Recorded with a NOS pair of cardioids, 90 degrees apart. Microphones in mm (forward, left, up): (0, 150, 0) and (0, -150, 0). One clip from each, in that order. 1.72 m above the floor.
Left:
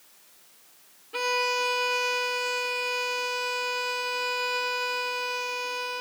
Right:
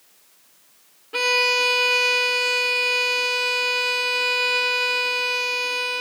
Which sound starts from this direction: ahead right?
A violin, at 1.1 s.